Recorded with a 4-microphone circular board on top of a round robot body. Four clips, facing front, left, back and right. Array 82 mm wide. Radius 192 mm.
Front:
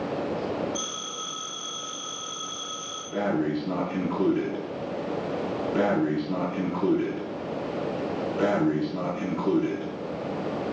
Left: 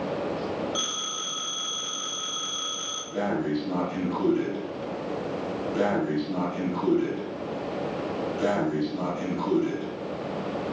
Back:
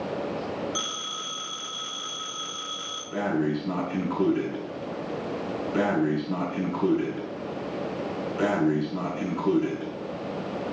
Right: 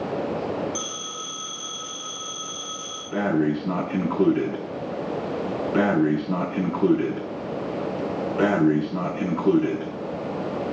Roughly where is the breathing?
Right.